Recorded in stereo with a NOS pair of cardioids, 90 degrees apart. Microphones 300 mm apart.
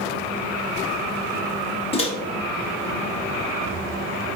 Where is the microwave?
20° left, 0.6 m.